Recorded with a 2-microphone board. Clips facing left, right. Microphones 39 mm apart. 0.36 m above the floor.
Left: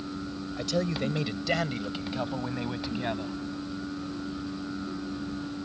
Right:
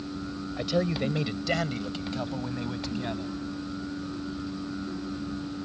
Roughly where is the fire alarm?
I don't hear a fire alarm.